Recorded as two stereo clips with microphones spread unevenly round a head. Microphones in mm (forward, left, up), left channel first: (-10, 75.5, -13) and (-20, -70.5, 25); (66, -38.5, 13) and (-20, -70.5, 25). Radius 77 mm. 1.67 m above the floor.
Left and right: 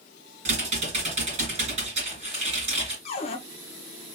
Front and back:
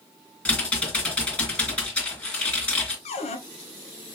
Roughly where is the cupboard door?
Ahead left.